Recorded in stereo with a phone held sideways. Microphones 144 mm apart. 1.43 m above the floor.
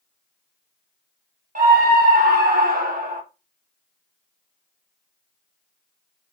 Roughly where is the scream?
Right.